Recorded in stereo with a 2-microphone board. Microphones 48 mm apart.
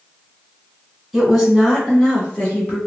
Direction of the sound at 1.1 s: Centre (ahead or behind).